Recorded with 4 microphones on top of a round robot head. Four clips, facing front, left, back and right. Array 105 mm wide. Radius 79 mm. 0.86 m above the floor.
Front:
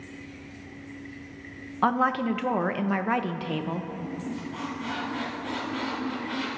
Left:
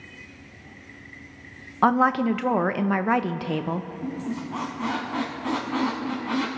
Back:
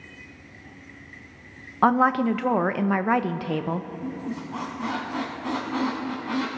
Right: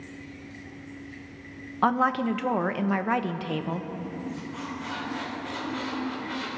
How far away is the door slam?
No door slam in this recording.